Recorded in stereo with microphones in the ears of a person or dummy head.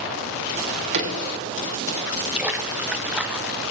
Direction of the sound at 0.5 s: 60° right (ahead or behind).